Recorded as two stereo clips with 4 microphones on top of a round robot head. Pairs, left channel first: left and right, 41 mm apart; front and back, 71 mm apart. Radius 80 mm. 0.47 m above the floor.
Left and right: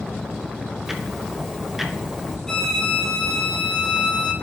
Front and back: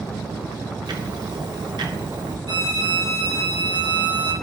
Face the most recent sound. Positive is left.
turn(degrees=170)